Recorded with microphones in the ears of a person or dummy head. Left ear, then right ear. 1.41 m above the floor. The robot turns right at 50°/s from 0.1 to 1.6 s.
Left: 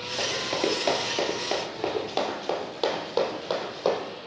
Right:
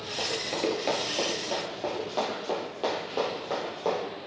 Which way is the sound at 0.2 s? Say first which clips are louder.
Left 2 dB; centre (ahead or behind).